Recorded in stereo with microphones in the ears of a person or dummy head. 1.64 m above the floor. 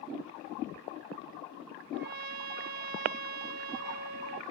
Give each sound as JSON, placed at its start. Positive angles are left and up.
{"t": 1.9, "sound": "a trumpet", "side_deg": -55, "distance_m": 1.1}